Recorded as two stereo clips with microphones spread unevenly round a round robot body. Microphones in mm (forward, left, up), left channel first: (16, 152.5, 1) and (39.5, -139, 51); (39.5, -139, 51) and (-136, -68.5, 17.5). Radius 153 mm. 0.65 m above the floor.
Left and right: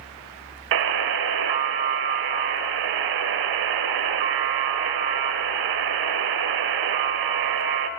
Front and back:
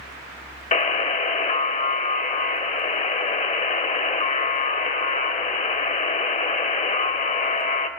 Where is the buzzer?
75° right, 1.3 m.